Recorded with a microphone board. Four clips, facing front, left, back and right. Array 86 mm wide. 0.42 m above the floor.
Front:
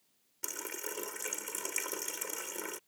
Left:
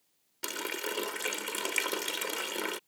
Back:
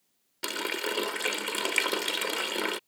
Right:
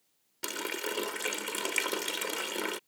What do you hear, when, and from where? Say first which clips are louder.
0.4 s a running tap: right 1 dB, back 11 dB; 175° left